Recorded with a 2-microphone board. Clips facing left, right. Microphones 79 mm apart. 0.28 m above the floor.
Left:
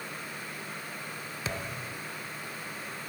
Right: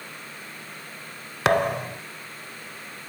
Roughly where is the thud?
Right.